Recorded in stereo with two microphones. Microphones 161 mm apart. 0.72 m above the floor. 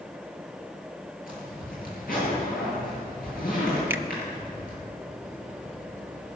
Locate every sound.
1.3 s a zipper: 65° left (ahead or behind), 8 m
3.9 s a finger snap: 15° right (ahead or behind), 0.8 m